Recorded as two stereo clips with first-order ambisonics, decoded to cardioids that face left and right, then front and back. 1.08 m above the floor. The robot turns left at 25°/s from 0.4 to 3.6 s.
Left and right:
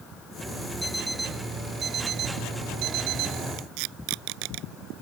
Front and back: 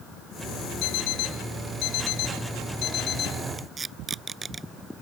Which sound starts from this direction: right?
Tape being pulled, at 3.6 s.